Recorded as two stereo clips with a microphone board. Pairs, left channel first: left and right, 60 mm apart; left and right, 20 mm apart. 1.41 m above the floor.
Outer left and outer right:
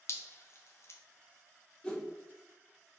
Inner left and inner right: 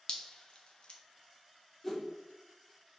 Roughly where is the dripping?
Left.